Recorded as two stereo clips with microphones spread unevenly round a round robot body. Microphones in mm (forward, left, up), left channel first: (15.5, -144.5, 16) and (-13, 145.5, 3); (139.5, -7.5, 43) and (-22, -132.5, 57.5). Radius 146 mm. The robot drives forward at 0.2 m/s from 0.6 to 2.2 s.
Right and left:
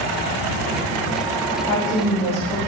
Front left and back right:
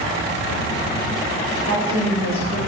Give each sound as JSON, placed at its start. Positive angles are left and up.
{"t": 1.7, "sound": "a woman speaking", "azimuth_deg": -160, "distance_m": 1.3}